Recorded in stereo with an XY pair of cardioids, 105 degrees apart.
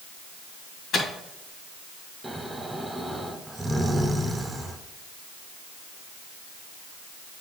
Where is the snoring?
15° right, 1.0 m.